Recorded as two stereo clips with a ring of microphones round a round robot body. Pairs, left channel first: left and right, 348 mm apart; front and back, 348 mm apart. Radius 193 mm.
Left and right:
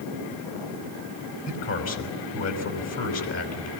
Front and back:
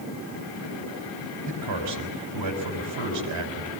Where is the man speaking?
135° left, 5.5 m.